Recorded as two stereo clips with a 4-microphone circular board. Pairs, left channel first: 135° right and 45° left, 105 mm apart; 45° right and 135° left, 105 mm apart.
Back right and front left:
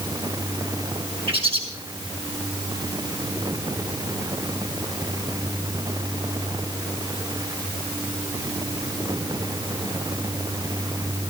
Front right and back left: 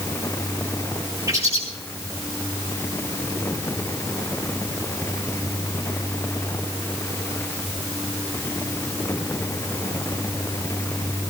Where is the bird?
75° left, 6.5 m.